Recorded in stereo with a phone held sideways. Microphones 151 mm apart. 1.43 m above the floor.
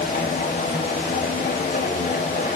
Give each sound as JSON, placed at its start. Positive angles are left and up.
{"t": 0.0, "sound": "a machine running", "side_deg": 85, "distance_m": 3.0}